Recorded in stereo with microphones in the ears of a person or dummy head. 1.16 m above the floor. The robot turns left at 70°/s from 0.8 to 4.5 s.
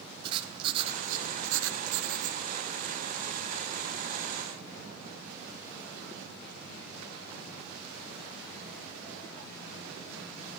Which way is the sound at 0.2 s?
30° right.